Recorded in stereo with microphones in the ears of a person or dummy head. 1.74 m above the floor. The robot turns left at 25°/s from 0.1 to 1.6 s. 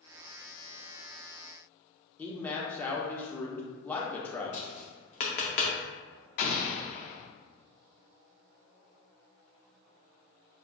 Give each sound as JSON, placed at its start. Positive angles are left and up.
{"t": 2.2, "sound": "a man speaking", "side_deg": 10, "distance_m": 0.9}
{"t": 4.5, "sound": "tapping", "side_deg": 35, "distance_m": 0.7}
{"t": 6.4, "sound": "an explosion", "side_deg": 40, "distance_m": 0.5}